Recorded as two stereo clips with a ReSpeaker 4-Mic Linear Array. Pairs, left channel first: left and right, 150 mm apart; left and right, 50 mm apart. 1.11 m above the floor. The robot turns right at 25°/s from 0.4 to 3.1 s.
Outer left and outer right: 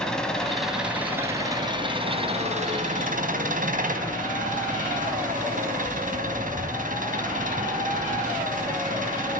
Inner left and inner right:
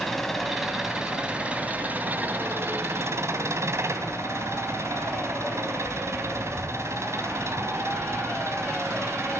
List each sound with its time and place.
0.0 s an engine running: 175° left, 4 m; by 9.4 s 115° right, 4 m